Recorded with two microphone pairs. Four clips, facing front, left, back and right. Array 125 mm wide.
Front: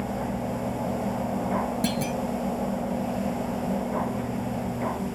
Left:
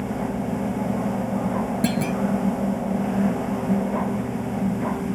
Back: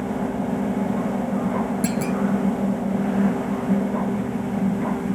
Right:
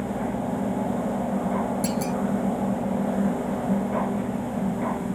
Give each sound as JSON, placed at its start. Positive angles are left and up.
{"t": 1.8, "sound": "a clunk", "azimuth_deg": 105}